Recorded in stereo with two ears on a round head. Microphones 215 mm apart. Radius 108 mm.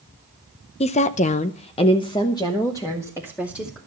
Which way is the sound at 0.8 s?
25° left (ahead or behind).